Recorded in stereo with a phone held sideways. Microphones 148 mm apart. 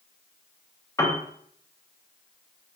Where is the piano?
20° left (ahead or behind), 0.6 m.